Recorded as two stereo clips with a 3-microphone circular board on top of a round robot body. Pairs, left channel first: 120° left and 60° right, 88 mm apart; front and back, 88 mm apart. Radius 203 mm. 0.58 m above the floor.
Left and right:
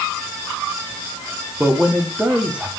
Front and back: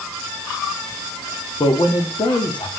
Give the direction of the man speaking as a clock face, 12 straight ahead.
11 o'clock.